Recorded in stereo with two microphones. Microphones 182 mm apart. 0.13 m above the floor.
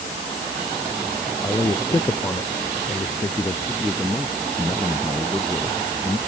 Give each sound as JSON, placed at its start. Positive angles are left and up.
{"t": 1.4, "sound": "a man speaking", "side_deg": 15}
{"t": 3.7, "sound": "a man speaking", "side_deg": 0}